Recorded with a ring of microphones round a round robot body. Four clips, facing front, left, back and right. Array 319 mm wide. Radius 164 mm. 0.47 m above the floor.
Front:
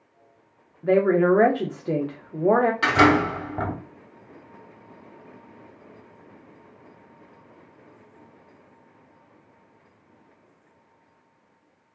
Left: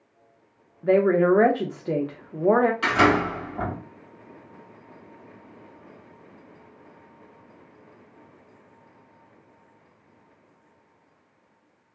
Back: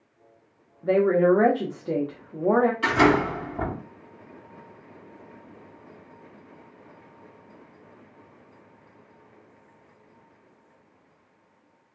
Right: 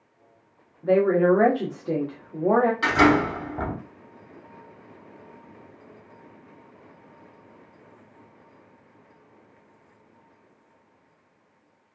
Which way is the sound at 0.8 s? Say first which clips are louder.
Even, front 1 dB; 45° left.